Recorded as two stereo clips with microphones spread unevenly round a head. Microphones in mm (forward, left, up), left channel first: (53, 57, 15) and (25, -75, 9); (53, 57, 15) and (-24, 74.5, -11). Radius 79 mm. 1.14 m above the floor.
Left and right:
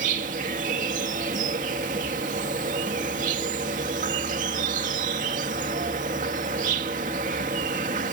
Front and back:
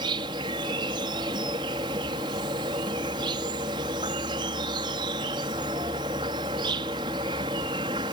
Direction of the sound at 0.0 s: 145° right.